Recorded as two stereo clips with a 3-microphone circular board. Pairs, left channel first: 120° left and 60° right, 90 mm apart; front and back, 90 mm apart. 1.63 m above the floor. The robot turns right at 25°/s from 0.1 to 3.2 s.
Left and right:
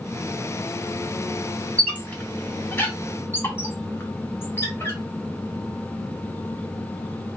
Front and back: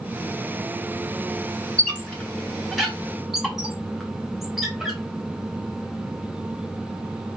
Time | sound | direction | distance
1.8 | a squeak | 60° left | 1.0 m